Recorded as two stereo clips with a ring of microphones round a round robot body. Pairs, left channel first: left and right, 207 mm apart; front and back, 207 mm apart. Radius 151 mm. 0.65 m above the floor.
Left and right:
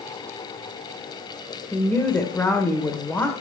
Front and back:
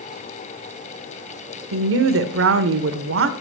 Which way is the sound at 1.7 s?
175° left.